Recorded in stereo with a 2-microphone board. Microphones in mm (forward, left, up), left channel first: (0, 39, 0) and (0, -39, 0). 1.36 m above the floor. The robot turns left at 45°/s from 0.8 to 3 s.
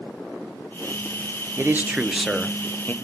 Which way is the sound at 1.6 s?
145° right.